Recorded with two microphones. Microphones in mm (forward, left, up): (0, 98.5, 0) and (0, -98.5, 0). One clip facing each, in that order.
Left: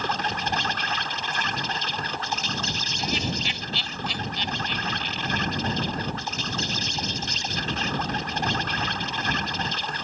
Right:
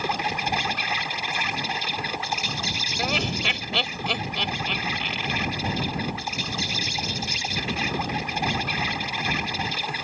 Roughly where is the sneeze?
I don't hear a sneeze.